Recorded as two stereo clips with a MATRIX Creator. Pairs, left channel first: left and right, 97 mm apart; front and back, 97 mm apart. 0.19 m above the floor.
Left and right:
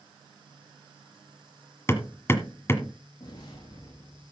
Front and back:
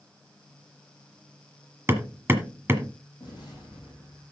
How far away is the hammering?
About 1.4 m.